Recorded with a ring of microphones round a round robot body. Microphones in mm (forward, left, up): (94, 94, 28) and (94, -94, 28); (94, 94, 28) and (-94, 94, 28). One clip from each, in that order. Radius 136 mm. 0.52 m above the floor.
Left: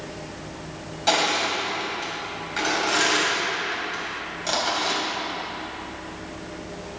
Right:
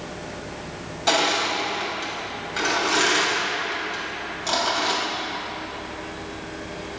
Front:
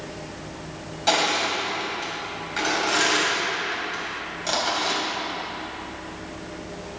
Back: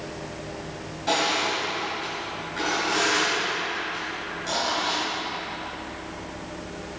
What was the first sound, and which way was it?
Crushing, straight ahead.